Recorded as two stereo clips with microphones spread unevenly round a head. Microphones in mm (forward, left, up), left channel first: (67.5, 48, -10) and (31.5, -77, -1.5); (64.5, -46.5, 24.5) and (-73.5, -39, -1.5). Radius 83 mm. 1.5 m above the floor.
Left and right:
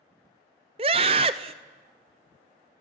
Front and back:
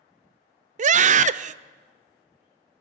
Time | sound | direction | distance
0.8 | a scream | 165° right | 0.6 m